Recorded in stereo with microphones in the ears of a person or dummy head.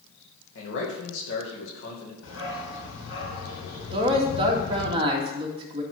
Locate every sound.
0.6 s a man speaking: 75° left (ahead or behind), 2.5 m
2.2 s a dog barking: 65° left (ahead or behind), 4.5 m
3.9 s a man speaking: 30° right (ahead or behind), 2 m